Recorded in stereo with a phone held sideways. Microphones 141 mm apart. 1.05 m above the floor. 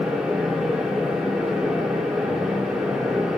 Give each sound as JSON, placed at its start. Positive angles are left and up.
{"t": 0.0, "sound": "a fan", "side_deg": -5, "distance_m": 1.3}